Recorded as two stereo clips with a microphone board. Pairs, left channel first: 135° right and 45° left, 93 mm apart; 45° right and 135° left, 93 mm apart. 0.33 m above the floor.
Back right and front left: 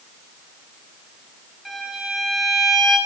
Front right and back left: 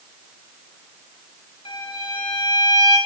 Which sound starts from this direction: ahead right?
A violin, at 1.6 s.